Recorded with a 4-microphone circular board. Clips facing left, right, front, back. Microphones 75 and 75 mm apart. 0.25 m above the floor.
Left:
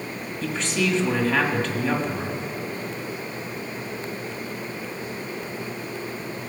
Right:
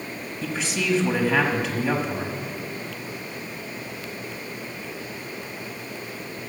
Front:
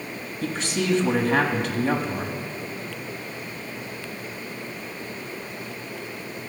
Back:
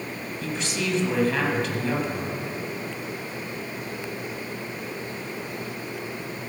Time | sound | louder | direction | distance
0.4 | a man speaking | left 2 dB, front 3 dB | 15° right | 1.4 m